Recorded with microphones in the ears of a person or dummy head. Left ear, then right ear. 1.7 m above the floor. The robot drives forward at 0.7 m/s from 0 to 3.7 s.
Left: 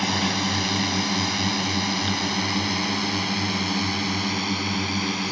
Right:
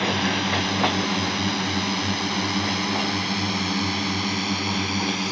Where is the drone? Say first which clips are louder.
Right 1 dB; 20° left (ahead or behind); by 5.3 s 5° left (ahead or behind).